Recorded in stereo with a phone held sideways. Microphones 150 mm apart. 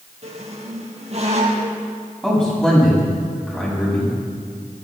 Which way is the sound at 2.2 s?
5° left (ahead or behind).